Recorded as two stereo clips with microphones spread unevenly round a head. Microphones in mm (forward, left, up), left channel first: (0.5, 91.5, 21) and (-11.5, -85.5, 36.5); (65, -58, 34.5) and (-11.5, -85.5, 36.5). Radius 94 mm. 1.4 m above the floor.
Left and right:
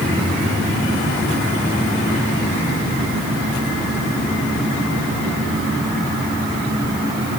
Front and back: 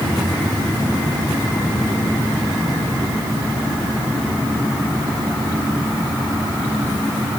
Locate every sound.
Only background noise.